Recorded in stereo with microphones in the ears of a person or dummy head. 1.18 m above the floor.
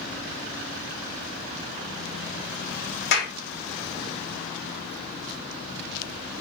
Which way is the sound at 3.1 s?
70° left (ahead or behind).